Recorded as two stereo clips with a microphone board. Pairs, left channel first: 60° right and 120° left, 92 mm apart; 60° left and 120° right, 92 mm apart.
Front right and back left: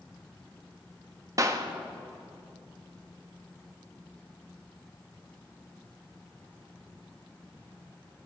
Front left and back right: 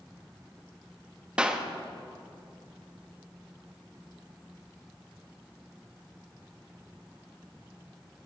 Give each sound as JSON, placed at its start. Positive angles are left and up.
{"t": 1.4, "sound": "a clap", "azimuth_deg": 165, "distance_m": 1.1}